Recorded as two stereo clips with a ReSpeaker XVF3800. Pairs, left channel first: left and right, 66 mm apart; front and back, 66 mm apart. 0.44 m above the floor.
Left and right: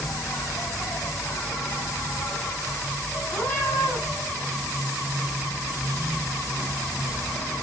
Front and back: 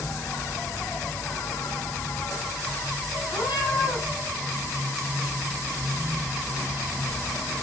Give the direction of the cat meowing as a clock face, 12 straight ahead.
11 o'clock.